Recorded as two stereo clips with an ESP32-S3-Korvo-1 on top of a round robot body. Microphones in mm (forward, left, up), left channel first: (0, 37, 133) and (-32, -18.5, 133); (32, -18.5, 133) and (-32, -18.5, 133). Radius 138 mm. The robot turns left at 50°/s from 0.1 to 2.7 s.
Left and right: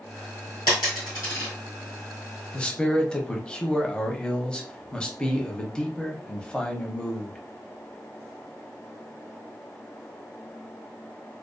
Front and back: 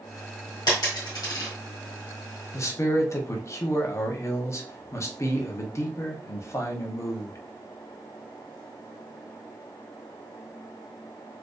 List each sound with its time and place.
0.7 s a dropped coin: 35° left, 0.9 m; by 1.5 s 10° right, 0.9 m
2.5 s a man speaking: 5° right, 0.8 m; by 7.4 s 10° right, 0.8 m